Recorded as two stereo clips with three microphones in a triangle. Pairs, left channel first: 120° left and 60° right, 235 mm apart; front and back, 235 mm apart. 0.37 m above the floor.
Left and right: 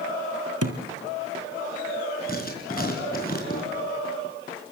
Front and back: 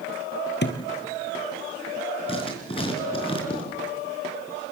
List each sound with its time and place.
0.6 s a thud: 45° right, 2.5 m
2.3 s writing: 65° left, 5 m